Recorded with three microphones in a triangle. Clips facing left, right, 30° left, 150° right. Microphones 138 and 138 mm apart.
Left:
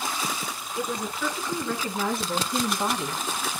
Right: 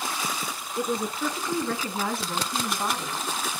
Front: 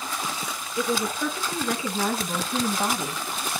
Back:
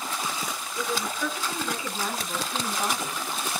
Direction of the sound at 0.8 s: 35° right.